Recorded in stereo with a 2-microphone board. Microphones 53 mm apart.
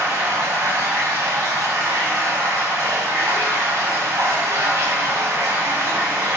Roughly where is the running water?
Right.